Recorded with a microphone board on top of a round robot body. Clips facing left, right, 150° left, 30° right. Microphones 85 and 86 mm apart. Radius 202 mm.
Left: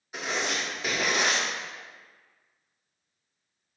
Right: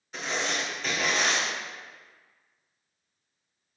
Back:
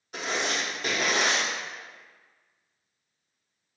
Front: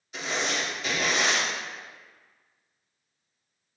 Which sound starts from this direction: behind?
Writing, at 0.1 s.